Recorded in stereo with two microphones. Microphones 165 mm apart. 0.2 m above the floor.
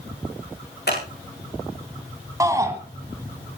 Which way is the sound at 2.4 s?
20° right (ahead or behind).